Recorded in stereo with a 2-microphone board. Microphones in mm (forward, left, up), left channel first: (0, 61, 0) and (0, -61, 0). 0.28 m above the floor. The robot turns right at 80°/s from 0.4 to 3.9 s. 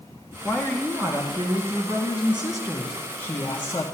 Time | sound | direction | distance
0.4 | a woman speaking | 160° left | 2.5 m